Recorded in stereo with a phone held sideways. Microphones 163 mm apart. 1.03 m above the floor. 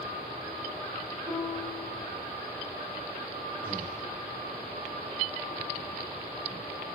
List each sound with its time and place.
1.3 s a piano: 30° right (ahead or behind), 3.5 m
3.6 s breathing: 60° right (ahead or behind), 1.5 m